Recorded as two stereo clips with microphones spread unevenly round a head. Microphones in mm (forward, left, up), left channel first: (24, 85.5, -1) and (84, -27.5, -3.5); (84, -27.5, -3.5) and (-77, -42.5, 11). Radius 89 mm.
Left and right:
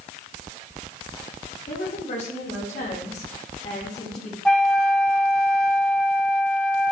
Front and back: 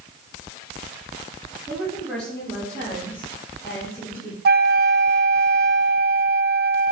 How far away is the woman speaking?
About 5 m.